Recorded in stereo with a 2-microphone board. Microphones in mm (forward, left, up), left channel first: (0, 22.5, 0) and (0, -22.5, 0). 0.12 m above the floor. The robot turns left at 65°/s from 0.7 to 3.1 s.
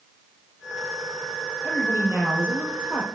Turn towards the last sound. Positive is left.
turn(degrees=-160)